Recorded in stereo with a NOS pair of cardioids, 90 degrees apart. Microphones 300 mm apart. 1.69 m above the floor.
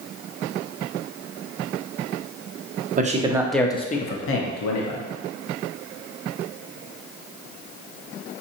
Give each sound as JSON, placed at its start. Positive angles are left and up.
{"t": 3.0, "sound": "a man speaking", "azimuth_deg": -25, "distance_m": 0.8}